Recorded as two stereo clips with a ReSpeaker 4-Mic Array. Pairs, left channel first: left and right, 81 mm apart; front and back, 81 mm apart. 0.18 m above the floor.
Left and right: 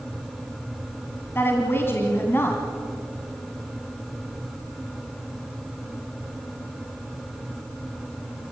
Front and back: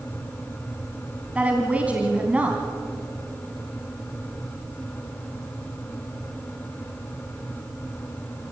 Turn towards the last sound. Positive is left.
turn(degrees=120)